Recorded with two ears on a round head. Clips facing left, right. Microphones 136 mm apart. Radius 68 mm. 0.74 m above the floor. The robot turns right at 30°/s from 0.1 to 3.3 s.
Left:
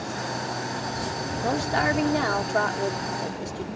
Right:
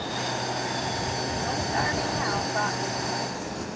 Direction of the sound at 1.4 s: 75° left.